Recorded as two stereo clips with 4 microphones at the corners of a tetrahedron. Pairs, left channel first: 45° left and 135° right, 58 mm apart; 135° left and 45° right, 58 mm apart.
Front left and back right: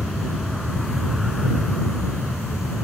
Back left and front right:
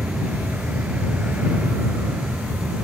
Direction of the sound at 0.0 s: 55° right.